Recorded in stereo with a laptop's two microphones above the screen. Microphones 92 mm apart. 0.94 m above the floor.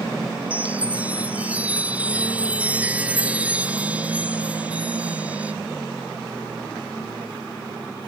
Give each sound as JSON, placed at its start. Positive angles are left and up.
{"t": 0.5, "sound": "a chime", "side_deg": -15}